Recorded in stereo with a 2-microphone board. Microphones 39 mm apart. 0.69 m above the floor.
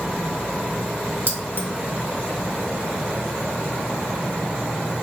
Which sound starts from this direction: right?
Keys jangling, at 1.3 s.